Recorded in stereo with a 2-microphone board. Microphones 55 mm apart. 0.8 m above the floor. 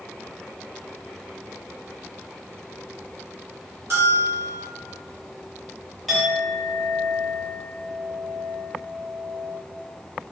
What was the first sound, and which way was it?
A bell, 50° right (ahead or behind).